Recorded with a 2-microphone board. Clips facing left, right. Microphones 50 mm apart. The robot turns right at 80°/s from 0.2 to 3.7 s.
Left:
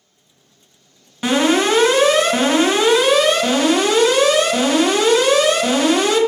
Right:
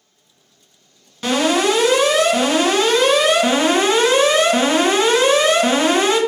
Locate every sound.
1.2 s an alarm: 25° left, 1.0 m; by 6.2 s 140° right, 1.0 m